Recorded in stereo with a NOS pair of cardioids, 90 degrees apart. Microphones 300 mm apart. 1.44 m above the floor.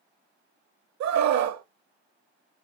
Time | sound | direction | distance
1.0 | a scream | 65° right | 1.2 m